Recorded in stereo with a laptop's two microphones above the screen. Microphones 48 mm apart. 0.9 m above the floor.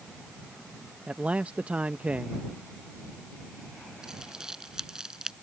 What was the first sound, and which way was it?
A man speaking, 30° right (ahead or behind).